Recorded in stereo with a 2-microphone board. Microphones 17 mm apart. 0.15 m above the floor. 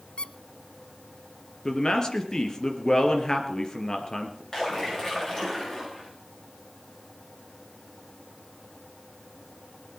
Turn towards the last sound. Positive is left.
turn(degrees=30)  # may be behind; listen again after turning